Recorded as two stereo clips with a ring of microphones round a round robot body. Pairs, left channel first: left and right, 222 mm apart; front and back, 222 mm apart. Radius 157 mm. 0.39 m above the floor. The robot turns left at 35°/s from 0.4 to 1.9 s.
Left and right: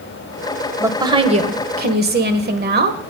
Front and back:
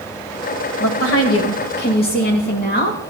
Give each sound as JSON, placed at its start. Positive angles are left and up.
{"t": 0.8, "sound": "a woman speaking", "azimuth_deg": -10, "distance_m": 1.4}